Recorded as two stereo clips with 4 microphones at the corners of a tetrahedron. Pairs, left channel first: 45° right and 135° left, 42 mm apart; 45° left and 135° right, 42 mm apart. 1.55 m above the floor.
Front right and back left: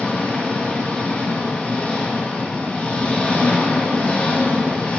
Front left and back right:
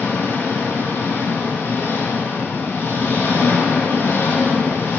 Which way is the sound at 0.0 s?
20° left.